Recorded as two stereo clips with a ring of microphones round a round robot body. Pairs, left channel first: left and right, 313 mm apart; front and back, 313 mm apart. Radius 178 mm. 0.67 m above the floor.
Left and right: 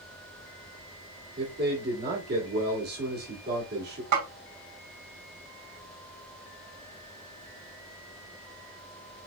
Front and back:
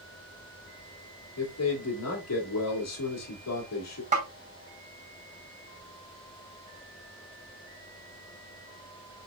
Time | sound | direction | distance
1.4 | a man speaking | 30° right | 2 m
4.1 | a snare drum | 110° right | 2.5 m